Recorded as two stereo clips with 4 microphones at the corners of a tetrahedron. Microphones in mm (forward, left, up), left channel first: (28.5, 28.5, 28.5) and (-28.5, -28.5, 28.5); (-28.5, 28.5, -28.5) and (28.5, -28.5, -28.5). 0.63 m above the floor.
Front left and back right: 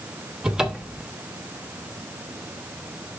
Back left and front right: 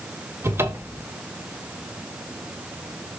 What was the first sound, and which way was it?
A cupboard door, 55° right.